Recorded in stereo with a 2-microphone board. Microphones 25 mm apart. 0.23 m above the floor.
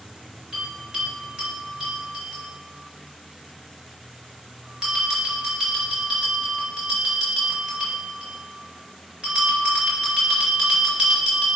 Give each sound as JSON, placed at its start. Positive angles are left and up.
{"t": 0.5, "sound": "a bell", "side_deg": -30, "distance_m": 2.5}